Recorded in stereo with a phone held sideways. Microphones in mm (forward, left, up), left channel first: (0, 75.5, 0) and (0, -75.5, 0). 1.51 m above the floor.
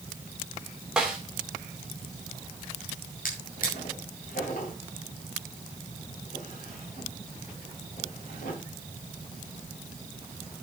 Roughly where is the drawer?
Left.